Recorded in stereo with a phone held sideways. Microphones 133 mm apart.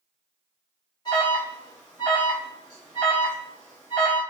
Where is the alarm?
30° left (ahead or behind), 1.7 m.